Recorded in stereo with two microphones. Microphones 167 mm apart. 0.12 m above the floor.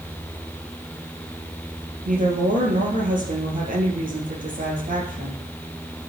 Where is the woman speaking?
55° right (ahead or behind), 3 m.